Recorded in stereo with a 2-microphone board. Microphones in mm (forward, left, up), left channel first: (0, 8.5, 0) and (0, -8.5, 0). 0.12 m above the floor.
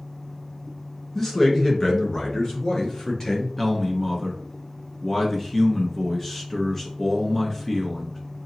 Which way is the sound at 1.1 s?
20° left (ahead or behind).